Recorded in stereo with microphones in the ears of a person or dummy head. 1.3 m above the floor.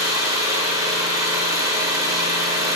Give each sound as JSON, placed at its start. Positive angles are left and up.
{"t": 0.0, "sound": "an engine running", "side_deg": -20, "distance_m": 1.9}